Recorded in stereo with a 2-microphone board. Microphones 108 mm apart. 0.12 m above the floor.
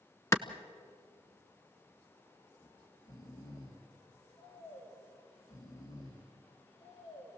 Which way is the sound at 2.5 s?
35° left (ahead or behind).